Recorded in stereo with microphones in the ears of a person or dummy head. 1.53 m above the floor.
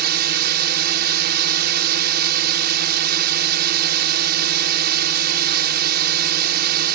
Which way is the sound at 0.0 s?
55° right (ahead or behind).